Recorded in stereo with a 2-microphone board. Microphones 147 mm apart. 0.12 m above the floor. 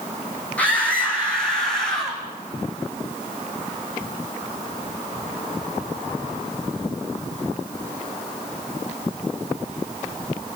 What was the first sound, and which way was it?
A scream, 10° left (ahead or behind).